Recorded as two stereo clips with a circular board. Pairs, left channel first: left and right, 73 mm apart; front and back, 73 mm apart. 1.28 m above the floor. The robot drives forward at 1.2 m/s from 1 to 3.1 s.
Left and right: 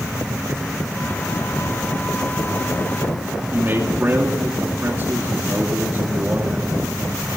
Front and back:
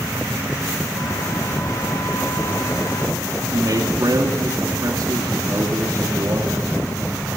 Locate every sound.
3.5 s a man speaking: 150° right, 3 m